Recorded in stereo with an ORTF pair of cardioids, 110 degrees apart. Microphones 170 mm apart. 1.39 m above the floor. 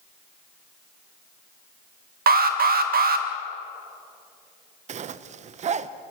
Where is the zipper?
45° right, 0.8 m.